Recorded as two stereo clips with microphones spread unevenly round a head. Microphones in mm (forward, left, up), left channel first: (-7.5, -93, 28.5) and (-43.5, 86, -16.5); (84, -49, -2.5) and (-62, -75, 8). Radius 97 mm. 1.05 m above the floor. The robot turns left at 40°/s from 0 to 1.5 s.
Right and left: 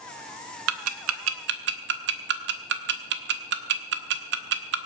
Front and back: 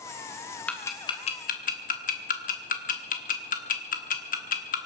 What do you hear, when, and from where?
0.7 s ticking: 95° left, 1.3 m; by 4.8 s 65° left, 1.3 m